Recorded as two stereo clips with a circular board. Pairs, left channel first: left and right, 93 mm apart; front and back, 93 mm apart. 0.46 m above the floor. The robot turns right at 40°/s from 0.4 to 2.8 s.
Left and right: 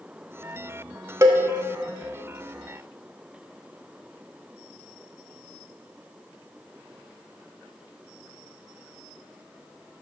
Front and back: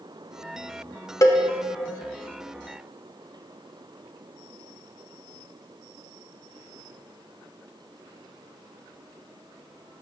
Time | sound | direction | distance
1.2 | a cowbell | 45° right | 0.5 m